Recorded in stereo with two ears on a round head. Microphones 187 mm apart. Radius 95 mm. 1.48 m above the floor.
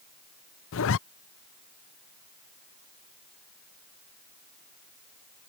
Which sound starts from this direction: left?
A zipper, at 0.7 s.